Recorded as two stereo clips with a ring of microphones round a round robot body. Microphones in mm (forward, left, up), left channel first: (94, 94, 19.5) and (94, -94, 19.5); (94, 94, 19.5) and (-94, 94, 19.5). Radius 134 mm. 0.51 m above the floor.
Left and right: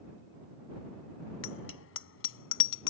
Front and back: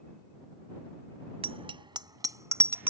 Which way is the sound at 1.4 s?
120° left.